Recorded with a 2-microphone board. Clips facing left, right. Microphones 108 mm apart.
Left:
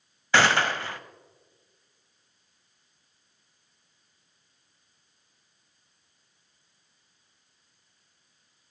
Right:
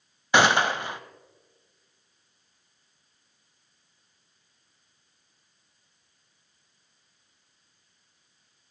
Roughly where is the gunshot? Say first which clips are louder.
Right 2 dB; centre.